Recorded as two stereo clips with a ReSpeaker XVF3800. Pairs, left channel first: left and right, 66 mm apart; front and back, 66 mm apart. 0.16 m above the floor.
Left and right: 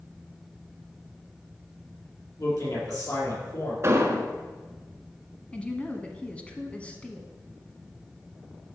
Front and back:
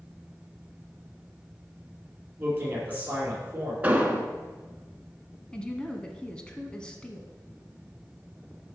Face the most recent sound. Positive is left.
turn(degrees=55)